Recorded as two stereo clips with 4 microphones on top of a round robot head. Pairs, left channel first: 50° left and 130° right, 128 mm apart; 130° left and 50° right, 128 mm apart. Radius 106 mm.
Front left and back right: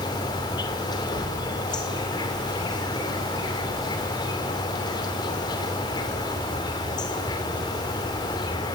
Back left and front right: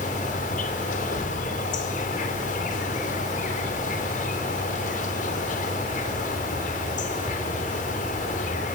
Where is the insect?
105° left, 3 m.